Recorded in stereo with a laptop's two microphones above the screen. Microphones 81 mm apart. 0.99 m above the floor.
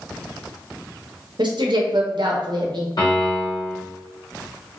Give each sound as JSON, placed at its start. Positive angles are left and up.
{"t": 1.4, "sound": "a woman speaking", "side_deg": -70, "distance_m": 0.6}
{"t": 3.0, "sound": "a piano", "side_deg": 60, "distance_m": 1.5}